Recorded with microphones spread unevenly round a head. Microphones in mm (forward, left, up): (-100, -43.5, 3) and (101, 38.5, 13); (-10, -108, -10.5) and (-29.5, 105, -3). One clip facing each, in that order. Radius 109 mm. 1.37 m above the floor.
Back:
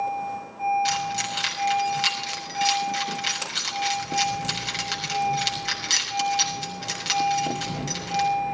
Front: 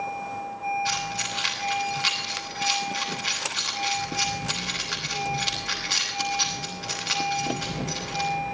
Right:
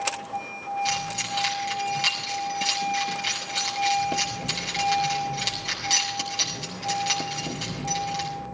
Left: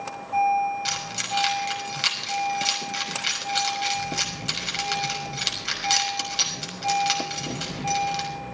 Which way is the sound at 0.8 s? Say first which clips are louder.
Back 3 dB, right 3 dB; 165° left.